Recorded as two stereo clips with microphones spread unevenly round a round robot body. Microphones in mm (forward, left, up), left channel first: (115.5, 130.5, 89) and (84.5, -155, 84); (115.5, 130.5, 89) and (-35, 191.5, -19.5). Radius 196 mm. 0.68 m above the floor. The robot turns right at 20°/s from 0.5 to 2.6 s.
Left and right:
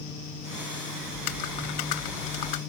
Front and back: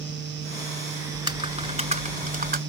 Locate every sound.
1.1 s typing on a keyboard: 80° left; by 2.6 s 110° left